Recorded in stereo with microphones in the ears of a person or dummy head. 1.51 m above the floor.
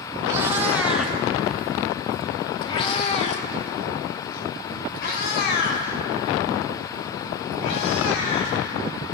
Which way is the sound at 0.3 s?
20° right (ahead or behind).